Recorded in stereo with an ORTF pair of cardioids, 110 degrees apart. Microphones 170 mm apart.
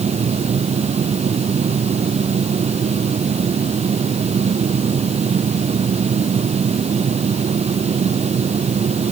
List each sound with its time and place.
0.0 s a fan: 40° right